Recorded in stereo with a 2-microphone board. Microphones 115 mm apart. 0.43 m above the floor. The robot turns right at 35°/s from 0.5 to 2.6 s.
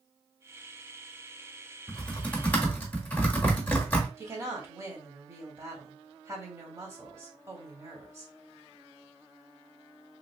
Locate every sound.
1.9 s typing on a keyboard: 5° left (ahead or behind), 1.1 m; by 4.1 s 15° left (ahead or behind), 1.1 m
4.2 s a woman speaking: 25° right (ahead or behind), 1.0 m